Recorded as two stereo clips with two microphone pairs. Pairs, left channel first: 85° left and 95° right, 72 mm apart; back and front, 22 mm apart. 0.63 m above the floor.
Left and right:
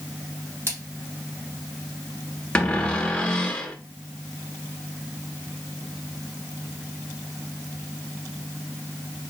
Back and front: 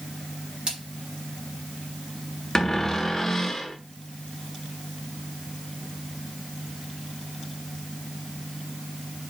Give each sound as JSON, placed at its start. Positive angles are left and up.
{"t": 0.7, "sound": "a splash", "azimuth_deg": -45, "distance_m": 3.0}
{"t": 2.5, "sound": "a cupboard door", "azimuth_deg": 140, "distance_m": 0.8}